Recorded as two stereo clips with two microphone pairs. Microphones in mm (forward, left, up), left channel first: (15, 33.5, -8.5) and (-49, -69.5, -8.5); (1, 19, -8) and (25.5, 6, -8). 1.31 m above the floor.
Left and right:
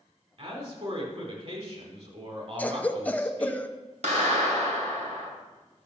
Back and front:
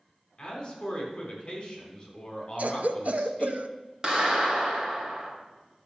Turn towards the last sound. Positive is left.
turn(degrees=-100)